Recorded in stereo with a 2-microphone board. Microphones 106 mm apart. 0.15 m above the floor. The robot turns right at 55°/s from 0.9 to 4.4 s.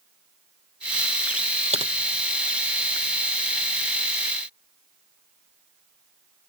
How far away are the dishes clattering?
I don't hear dishes clattering.